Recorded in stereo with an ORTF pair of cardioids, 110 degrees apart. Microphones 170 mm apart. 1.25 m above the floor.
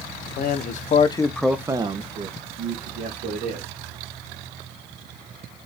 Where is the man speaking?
60° left, 0.9 m; by 3.7 s 65° right, 1.8 m.